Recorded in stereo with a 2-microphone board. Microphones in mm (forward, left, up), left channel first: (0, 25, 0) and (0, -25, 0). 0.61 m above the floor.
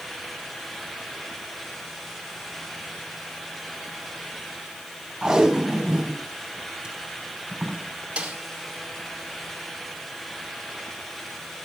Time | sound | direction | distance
5.2 | tape being pulled | 10° right (ahead or behind) | 4 m
8.2 | a snare drum | 25° right (ahead or behind) | 2.5 m